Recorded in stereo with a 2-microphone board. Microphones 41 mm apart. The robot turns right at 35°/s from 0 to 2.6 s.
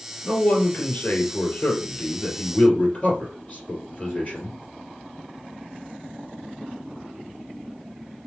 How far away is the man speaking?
About 2.5 m.